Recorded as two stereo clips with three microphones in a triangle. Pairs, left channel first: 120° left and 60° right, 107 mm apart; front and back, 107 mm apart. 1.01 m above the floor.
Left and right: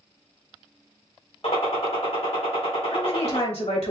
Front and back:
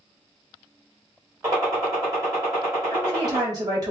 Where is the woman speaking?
130° left, 2.5 m.